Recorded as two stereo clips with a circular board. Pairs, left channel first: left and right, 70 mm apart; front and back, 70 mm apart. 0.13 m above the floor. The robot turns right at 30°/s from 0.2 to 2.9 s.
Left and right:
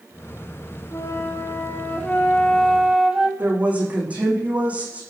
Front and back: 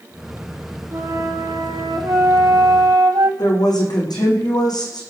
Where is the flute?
130° left, 2.5 m; by 3.3 s 170° right, 2.5 m.